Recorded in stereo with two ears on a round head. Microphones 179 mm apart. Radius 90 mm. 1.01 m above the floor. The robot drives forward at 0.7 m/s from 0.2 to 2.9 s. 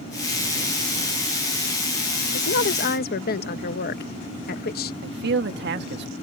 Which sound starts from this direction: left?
A woman speaking, at 2.3 s.